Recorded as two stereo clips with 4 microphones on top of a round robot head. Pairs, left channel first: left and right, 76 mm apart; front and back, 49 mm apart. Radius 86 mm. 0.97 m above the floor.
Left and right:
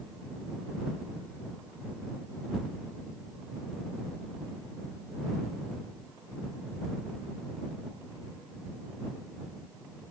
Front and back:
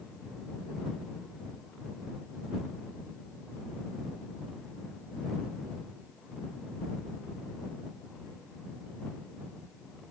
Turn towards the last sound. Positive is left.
No sound to turn to.